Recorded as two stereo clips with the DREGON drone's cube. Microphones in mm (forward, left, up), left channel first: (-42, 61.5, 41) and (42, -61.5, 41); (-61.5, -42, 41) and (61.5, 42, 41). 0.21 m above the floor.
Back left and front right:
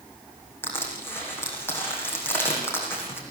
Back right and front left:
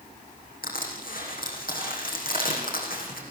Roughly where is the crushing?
Behind.